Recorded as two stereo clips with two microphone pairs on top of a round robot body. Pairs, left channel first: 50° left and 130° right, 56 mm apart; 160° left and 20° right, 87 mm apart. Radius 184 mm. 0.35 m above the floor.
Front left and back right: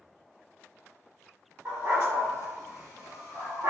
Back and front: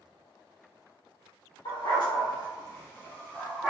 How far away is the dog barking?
About 1.2 m.